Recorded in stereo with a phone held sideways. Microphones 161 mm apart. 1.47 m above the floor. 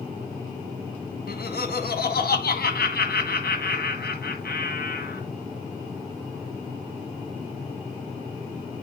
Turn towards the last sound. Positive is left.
turn(degrees=75)  # may be behind; listen again after turning